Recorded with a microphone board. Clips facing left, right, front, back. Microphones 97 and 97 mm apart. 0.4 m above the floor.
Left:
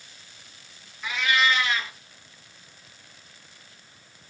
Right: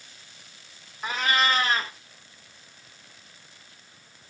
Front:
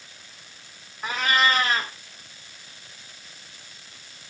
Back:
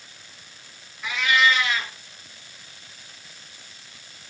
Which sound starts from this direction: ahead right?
A cat meowing, at 1.0 s.